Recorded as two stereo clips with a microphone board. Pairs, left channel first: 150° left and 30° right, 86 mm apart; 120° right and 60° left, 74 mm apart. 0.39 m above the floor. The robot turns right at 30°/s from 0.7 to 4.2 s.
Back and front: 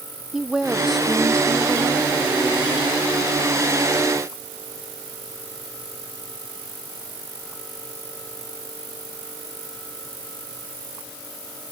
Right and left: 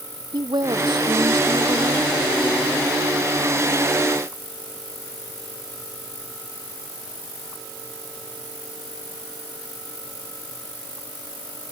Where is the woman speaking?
55° left; by 2.1 s 95° left.